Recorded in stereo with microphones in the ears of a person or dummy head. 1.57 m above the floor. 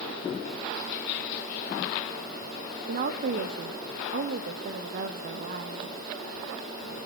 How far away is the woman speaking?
About 2.5 m.